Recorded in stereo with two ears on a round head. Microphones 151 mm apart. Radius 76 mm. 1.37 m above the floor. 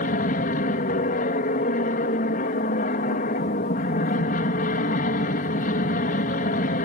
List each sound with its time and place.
0.0 s an aircraft: 50° left (ahead or behind)